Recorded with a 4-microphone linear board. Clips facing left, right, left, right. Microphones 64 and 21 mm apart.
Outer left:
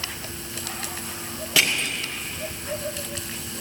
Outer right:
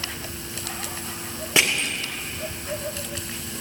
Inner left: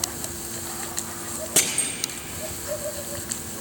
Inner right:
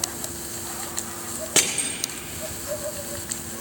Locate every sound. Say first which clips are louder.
1.6 s crushing: outer right 1 dB, inner right 2 dB; 30° right (ahead or behind), 2.5 m